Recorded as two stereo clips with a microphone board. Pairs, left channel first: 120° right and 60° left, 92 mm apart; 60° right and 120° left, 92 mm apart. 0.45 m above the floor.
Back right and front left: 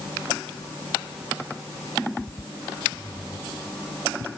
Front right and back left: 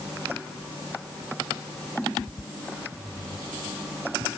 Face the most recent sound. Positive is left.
No sound to turn to.